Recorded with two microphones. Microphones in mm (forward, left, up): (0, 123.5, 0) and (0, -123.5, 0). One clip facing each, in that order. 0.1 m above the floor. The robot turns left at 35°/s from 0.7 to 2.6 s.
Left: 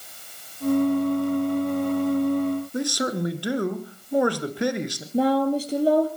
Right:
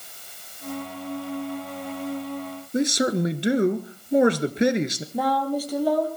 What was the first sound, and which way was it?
A man speaking, 20° right (ahead or behind).